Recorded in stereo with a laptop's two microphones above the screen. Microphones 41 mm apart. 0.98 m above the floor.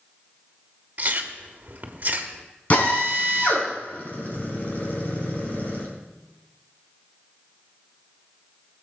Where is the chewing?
40° right (ahead or behind), 1.3 m.